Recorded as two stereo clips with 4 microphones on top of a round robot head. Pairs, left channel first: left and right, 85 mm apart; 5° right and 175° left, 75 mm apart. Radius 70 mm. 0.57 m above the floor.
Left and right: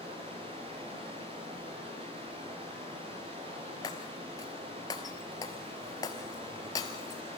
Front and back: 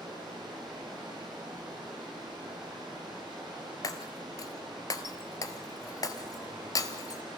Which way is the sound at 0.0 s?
105° right.